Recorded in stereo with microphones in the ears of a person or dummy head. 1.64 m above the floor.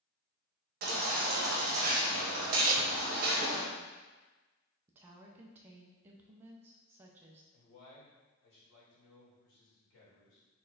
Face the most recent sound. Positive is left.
turn(degrees=65)  # may be behind; listen again after turning